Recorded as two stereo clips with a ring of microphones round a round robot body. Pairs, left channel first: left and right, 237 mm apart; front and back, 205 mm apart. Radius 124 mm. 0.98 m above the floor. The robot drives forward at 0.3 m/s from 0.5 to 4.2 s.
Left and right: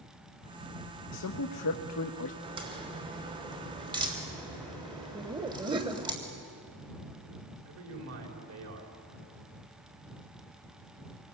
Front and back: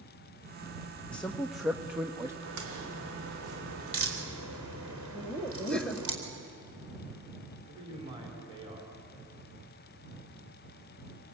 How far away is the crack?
About 3 m.